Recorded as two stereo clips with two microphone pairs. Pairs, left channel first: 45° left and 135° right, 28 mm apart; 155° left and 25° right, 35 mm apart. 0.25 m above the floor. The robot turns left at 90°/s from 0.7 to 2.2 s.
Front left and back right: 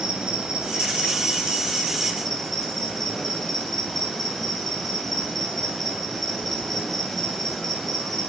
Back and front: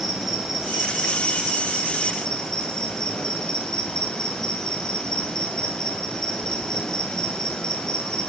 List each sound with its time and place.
0.0 s an insect: 105° right, 2 m; by 8.3 s 120° left, 2 m